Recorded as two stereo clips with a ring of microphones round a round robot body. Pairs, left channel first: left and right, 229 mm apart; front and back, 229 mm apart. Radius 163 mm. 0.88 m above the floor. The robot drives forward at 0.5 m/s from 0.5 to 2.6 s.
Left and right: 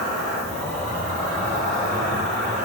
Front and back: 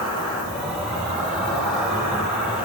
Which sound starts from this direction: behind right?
An insect, at 0.0 s.